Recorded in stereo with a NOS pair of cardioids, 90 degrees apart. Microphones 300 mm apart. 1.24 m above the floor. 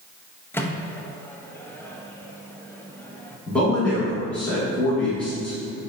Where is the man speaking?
5° left, 2.0 m.